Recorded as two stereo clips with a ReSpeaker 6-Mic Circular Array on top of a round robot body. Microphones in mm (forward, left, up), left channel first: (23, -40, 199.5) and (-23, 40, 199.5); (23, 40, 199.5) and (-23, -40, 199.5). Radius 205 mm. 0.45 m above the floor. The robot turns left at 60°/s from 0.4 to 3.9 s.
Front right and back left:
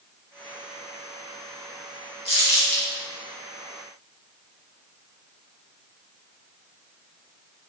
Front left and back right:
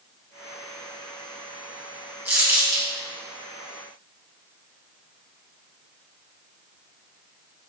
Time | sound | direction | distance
2.2 | crumpling | 50° right | 2.5 m